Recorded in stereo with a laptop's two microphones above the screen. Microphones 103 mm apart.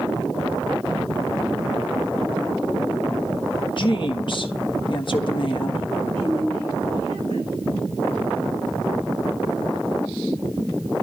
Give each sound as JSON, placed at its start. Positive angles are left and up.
{"t": 3.8, "sound": "a woman speaking", "side_deg": 50, "distance_m": 1.2}
{"t": 6.2, "sound": "a woman speaking", "side_deg": -80, "distance_m": 8.5}